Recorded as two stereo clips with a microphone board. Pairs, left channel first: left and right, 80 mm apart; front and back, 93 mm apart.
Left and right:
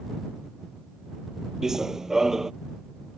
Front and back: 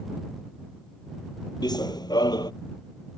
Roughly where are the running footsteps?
Ahead.